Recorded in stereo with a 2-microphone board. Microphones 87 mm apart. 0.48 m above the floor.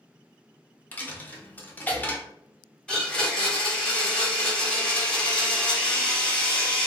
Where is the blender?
10° left (ahead or behind), 1.0 m.